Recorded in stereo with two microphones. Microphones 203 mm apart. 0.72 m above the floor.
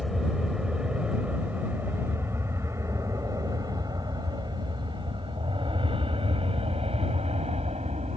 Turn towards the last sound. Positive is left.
turn(degrees=-35)  # may be behind; listen again after turning